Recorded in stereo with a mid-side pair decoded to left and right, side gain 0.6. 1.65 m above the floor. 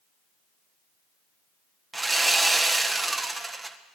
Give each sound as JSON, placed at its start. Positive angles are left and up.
{"t": 1.9, "sound": "sawing", "azimuth_deg": -10, "distance_m": 1.6}